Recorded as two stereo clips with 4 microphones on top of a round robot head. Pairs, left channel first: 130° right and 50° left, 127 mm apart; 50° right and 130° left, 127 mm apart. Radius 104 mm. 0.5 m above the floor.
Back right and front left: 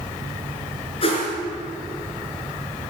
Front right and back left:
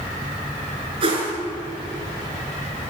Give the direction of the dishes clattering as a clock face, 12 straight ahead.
No dishes clattering in this recording.